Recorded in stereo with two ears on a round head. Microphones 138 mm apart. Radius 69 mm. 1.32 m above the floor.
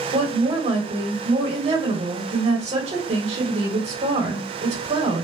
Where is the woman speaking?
45° right (ahead or behind), 1.4 m.